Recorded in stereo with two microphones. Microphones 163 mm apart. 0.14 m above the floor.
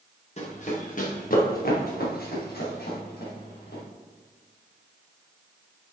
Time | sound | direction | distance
0.4 | running footsteps | 45° left (ahead or behind) | 2 m